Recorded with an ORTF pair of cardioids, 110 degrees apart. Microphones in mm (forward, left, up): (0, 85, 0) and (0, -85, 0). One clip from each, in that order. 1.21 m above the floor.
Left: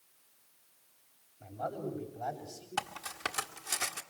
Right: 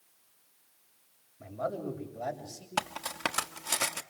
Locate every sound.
1.4 s a man speaking: 65° right, 7 m
2.8 s cutlery clinking: 40° right, 1.5 m